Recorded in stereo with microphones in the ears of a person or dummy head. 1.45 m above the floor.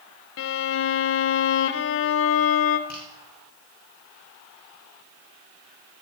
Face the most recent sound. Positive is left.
turn(degrees=55)  # may be behind; listen again after turning